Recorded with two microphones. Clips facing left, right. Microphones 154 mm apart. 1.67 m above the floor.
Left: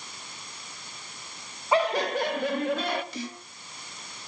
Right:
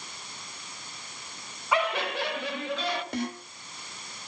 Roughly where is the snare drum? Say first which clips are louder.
Right 5 dB; right.